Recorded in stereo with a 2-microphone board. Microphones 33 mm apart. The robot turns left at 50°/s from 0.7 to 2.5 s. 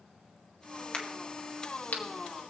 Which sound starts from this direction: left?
A crack, at 0.9 s.